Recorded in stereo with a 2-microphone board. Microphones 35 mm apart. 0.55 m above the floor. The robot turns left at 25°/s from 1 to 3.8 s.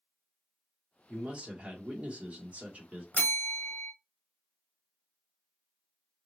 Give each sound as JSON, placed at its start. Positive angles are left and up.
{"t": 1.1, "sound": "a man speaking", "azimuth_deg": -45, "distance_m": 1.2}
{"t": 3.1, "sound": "a bell", "side_deg": 45, "distance_m": 0.9}